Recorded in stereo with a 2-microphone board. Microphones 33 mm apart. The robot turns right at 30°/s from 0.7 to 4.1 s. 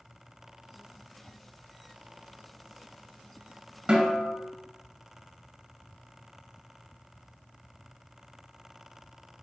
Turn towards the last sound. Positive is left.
turn(degrees=-35)  # may be behind; listen again after turning